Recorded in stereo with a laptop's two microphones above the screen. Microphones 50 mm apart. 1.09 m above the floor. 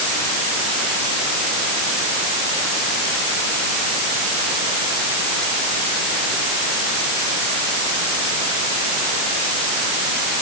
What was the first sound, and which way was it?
Only background noise.